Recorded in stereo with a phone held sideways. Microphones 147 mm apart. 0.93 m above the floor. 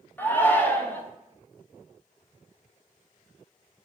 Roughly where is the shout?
Centre.